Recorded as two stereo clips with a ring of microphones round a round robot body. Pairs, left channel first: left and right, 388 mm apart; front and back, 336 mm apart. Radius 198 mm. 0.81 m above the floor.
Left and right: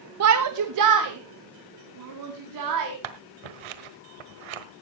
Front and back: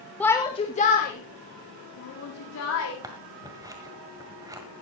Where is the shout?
85° right, 1.0 m; by 2.9 s 55° right, 3.5 m.